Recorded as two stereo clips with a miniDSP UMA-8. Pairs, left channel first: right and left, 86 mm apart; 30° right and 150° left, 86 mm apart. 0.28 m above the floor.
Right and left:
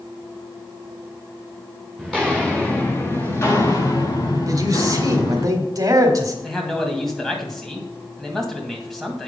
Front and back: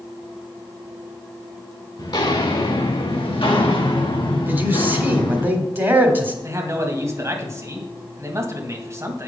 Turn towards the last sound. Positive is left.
turn(degrees=-175)